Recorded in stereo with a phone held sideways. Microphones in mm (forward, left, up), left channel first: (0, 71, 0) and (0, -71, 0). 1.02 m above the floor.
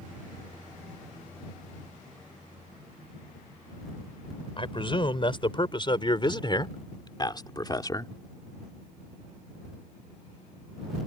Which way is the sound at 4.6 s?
35° left (ahead or behind).